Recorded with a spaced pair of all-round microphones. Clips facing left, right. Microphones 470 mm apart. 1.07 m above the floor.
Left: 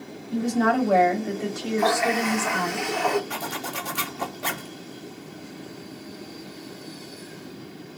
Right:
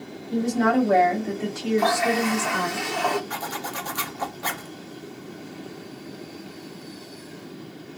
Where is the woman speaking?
50° right (ahead or behind), 1.5 m; by 2.8 s 15° left (ahead or behind), 1.5 m.